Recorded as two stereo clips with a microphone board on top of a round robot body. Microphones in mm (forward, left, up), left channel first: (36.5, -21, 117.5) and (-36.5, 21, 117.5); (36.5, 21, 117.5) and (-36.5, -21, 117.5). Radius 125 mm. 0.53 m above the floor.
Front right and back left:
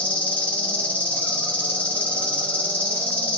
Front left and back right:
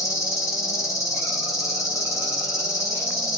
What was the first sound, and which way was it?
An insect, 30° left.